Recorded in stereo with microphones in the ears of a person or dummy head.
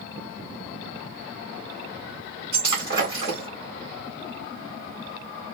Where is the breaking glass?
35° right (ahead or behind), 3 m.